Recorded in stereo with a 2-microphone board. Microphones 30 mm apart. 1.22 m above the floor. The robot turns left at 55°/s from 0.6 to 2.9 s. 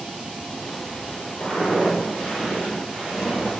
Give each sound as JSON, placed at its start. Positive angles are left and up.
{"t": 1.4, "sound": "footsteps", "side_deg": 35, "distance_m": 1.5}